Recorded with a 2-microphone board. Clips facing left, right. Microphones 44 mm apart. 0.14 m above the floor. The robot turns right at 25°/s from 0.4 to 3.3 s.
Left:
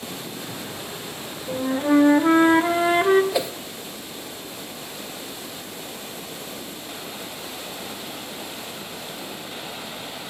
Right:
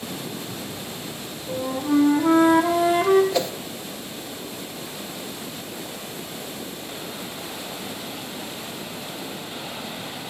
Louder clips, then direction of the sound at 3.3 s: Right 1 dB; 10° left (ahead or behind).